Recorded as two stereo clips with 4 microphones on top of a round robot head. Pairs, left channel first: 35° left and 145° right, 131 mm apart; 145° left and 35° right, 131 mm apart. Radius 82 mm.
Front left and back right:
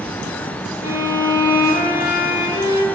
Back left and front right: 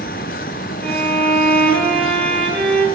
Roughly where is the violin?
Ahead left.